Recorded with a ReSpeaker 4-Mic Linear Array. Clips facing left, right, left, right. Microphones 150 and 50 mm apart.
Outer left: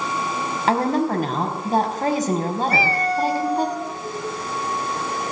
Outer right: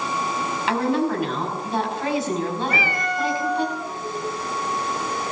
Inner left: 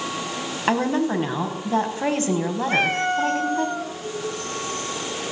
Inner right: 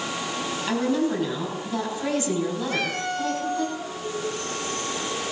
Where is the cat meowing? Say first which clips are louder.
Outer left 4 dB, inner left 6 dB; 35° left (ahead or behind), 0.9 m.